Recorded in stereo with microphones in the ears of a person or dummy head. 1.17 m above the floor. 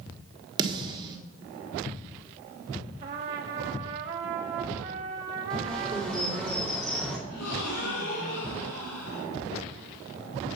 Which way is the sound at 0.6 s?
30° right (ahead or behind).